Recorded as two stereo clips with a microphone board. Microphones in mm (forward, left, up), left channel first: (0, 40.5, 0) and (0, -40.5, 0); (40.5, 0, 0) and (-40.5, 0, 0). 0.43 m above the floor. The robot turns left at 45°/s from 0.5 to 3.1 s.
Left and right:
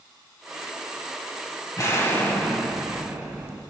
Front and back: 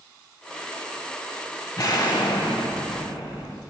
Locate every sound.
1.8 s an explosion: 40° left, 1.0 m; by 3.6 s 20° right, 1.0 m